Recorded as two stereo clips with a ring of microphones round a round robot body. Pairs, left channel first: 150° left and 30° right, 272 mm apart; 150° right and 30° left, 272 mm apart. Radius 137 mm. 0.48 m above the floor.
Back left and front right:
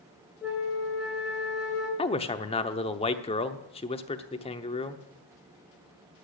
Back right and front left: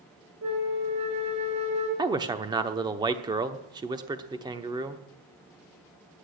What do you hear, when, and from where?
0.4 s a flute: 60° left, 4.5 m
2.0 s a man speaking: 95° left, 0.8 m